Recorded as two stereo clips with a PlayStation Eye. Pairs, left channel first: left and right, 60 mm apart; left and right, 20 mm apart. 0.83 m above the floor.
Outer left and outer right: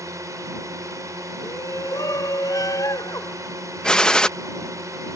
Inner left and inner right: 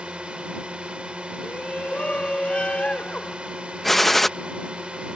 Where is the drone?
65° right (ahead or behind).